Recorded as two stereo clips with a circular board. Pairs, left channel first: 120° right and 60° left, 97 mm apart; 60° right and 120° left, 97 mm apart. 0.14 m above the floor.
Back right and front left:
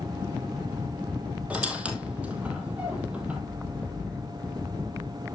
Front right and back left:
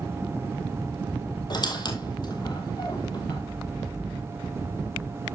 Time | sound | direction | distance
1.5 | a squeak | 15° right | 1.4 m